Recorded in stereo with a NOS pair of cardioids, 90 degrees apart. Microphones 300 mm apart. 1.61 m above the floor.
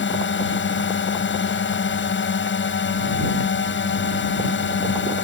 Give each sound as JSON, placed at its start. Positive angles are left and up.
{"t": 0.0, "sound": "a drone", "azimuth_deg": 40}